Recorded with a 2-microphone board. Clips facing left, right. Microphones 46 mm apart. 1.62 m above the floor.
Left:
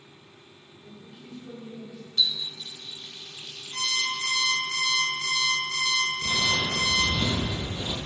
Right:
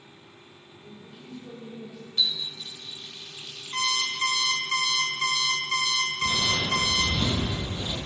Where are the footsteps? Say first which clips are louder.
Even; 5° right (ahead or behind), 2 m; by 8.0 s 30° left (ahead or behind), 1.9 m.